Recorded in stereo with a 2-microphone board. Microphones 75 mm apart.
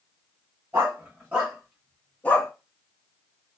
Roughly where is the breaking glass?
I don't hear breaking glass.